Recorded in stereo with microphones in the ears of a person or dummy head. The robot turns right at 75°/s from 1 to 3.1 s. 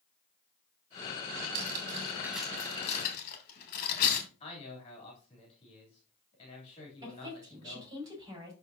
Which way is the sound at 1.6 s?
70° right (ahead or behind).